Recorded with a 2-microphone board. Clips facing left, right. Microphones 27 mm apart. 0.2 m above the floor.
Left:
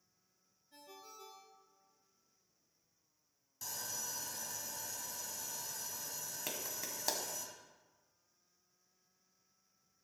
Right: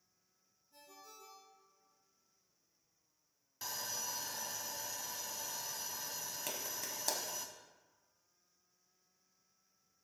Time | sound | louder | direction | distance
0.7 | a ringtone | left 2 dB | 60° left (ahead or behind) | 2.0 m
3.6 | sawing | right 2 dB | 35° right (ahead or behind) | 0.9 m
6.5 | a clap | left 1 dB | 10° left (ahead or behind) | 1.1 m